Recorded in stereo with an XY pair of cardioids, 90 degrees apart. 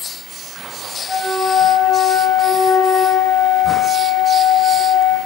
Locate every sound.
1.1 s a flute: 45° left, 5.5 m